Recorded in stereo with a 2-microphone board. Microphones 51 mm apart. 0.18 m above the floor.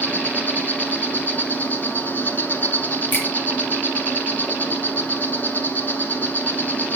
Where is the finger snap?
40° left (ahead or behind), 1.8 m.